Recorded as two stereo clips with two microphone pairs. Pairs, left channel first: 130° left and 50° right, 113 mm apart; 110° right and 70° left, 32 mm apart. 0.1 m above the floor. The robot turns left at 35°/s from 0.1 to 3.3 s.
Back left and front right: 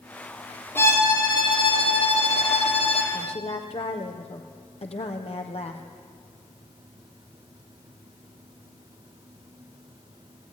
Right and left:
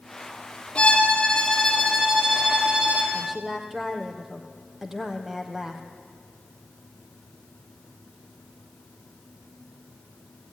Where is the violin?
160° right, 4.5 m; by 3.0 s 120° left, 4.5 m.